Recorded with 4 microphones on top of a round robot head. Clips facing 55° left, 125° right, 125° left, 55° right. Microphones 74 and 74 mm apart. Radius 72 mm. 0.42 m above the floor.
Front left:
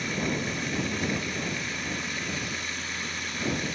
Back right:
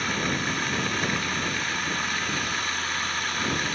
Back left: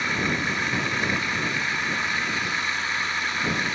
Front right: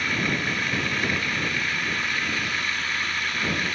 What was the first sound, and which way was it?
Running water, 165° right.